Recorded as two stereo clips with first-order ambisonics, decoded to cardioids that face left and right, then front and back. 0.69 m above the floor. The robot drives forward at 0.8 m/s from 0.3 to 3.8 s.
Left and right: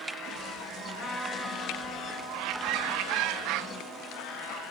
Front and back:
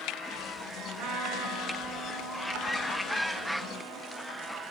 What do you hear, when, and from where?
1.0 s a trumpet: 165° left, 1.5 m; by 4.6 s 175° left, 3.5 m